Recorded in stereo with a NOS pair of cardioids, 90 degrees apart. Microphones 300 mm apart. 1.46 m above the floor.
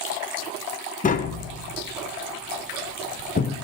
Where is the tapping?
30° left, 0.7 m.